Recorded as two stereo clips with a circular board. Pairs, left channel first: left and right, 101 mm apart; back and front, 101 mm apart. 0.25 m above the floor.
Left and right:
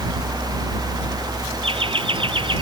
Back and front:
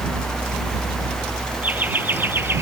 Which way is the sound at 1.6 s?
75° right.